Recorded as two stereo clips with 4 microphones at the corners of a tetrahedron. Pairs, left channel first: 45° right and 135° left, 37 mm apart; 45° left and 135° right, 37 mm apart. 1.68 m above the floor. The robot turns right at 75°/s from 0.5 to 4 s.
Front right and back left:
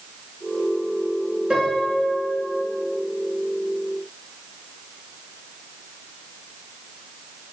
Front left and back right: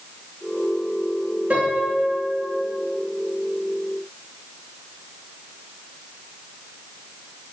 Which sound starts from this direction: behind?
A piano, at 1.5 s.